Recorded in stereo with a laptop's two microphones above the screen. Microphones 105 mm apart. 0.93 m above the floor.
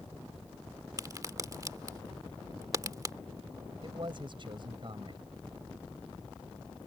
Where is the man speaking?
50° right (ahead or behind).